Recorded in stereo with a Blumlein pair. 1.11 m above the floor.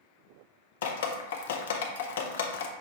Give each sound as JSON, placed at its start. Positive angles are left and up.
{"t": 0.8, "sound": "dripping", "azimuth_deg": 60, "distance_m": 0.5}